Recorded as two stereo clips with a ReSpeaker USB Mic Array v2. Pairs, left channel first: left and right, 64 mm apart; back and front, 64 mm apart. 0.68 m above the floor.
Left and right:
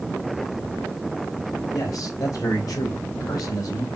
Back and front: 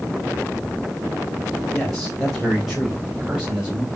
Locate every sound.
1.7 s a man speaking: 95° left, 3.5 m; by 3.9 s 75° left, 4 m